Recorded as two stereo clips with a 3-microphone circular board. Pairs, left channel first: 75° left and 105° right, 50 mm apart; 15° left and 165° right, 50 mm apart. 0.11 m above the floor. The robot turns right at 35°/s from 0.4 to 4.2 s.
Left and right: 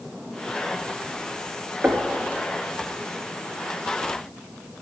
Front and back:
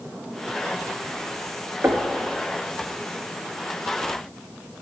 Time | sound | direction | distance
1.8 | knocking | 150° right | 1.7 m